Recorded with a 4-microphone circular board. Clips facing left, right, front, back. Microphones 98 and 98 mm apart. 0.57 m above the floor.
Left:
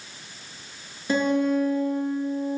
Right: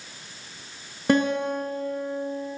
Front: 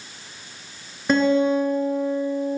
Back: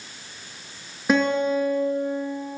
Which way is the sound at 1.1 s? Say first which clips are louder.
Even, front 3 dB; 95° right.